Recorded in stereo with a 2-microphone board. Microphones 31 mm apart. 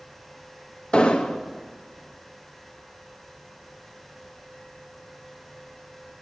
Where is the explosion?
30° left (ahead or behind), 1.0 m.